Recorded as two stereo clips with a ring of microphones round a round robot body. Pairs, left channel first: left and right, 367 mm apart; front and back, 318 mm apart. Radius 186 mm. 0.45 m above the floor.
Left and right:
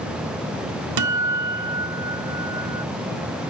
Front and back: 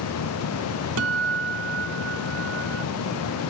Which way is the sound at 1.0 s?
130° right.